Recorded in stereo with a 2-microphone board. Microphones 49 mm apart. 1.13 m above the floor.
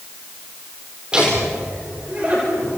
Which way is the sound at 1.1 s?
15° right (ahead or behind).